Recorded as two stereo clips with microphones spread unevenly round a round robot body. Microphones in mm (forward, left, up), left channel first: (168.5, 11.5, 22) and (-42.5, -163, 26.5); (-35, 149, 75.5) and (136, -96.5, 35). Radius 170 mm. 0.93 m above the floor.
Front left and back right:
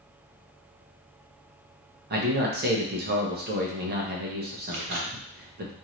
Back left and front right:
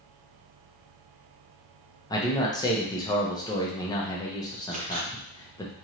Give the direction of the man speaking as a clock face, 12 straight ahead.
5 o'clock.